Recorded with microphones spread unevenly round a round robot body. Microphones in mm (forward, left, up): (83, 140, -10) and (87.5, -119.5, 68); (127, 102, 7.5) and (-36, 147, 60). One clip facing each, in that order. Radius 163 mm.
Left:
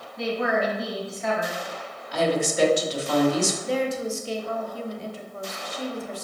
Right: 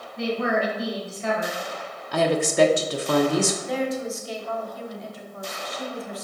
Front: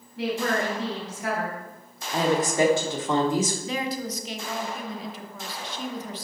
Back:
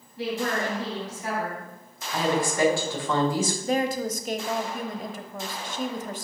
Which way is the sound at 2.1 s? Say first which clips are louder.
Right 2 dB, front 2 dB; 60° right.